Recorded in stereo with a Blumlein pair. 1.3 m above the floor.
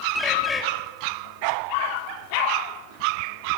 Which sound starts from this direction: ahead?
A bird, at 0.1 s.